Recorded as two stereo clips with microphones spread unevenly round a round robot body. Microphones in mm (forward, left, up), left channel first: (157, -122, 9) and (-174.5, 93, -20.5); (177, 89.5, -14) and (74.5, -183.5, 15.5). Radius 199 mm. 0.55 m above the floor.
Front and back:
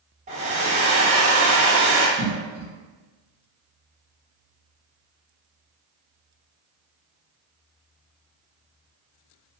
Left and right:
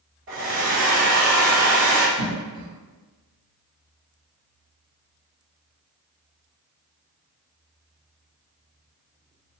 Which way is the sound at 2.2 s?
170° left.